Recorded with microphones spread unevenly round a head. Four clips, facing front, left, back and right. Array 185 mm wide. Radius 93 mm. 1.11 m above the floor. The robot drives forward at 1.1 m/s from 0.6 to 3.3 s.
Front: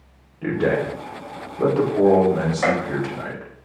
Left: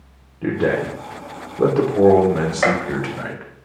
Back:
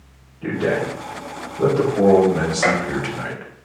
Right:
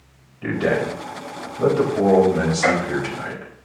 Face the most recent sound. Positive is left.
turn(degrees=125)